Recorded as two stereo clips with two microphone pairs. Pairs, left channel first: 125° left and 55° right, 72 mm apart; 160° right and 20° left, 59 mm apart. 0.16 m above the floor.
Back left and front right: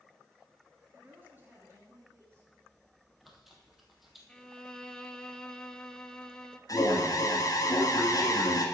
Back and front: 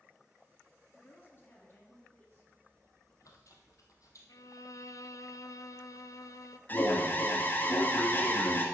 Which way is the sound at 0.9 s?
115° right.